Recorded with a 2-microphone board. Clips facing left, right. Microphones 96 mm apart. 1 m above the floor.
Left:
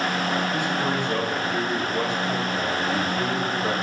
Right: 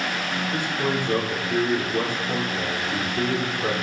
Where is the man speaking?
50° right (ahead or behind), 3 m.